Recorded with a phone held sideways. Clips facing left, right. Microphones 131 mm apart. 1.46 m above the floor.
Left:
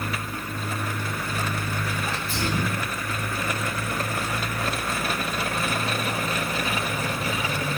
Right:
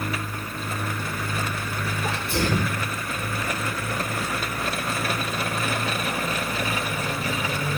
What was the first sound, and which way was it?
A sneeze, 75° right (ahead or behind).